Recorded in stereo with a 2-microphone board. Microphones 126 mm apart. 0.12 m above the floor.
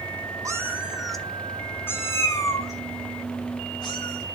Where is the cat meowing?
25° right (ahead or behind), 0.9 m; by 4.2 s 35° left (ahead or behind), 3 m.